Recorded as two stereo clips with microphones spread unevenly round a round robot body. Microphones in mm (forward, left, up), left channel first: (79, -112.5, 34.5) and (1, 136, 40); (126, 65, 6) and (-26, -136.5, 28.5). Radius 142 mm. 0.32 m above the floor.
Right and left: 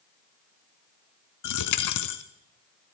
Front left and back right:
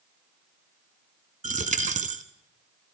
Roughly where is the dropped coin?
Ahead right.